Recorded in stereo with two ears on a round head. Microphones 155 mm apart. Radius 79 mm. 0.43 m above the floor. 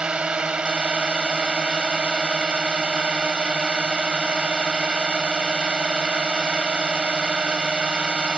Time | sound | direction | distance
0.0 | a drone | 5° right (ahead or behind) | ?